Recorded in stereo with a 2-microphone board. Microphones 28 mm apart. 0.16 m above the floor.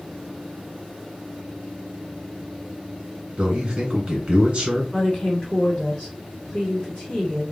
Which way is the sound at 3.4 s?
35° right (ahead or behind).